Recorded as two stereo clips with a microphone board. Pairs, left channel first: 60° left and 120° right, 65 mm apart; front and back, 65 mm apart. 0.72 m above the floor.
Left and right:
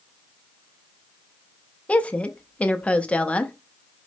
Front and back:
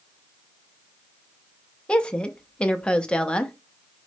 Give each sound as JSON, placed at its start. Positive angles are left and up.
{"t": 1.9, "sound": "a woman speaking", "azimuth_deg": 45, "distance_m": 0.5}